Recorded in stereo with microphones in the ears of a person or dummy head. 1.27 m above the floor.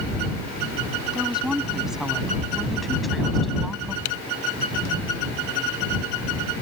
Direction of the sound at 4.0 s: 70° left (ahead or behind).